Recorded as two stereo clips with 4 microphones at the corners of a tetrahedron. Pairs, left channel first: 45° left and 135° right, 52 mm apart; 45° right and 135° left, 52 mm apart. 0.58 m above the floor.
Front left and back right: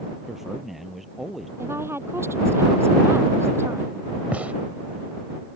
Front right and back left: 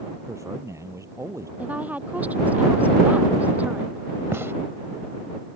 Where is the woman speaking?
170° right.